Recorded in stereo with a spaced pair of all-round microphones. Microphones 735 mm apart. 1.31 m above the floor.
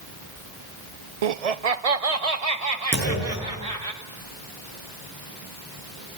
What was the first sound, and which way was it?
Laughter, 55° right (ahead or behind).